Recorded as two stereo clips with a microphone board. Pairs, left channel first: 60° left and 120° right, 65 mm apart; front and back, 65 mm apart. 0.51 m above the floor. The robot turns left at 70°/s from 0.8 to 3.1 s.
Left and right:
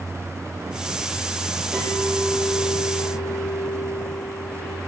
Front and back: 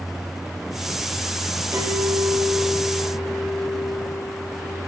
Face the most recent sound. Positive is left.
turn(degrees=60)